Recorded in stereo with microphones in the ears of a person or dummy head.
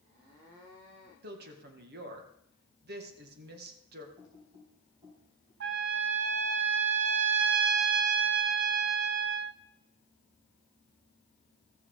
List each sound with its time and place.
1.2 s a woman speaking: 60° right (ahead or behind), 1.9 m
4.2 s typing on a keyboard: 25° right (ahead or behind), 3.5 m
5.6 s a trumpet: 55° right (ahead or behind), 0.7 m